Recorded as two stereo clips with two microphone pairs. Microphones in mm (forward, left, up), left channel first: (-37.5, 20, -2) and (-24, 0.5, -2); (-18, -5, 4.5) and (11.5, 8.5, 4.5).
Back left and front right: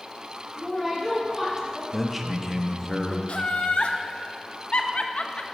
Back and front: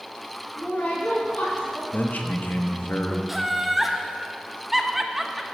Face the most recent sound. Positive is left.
turn(degrees=110)